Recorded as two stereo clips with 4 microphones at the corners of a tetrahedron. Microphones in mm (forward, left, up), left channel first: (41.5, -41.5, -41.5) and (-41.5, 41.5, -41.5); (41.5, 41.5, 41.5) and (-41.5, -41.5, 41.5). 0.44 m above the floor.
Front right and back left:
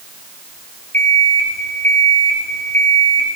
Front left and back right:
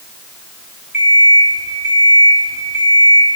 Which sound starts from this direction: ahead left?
An alarm clock, at 0.9 s.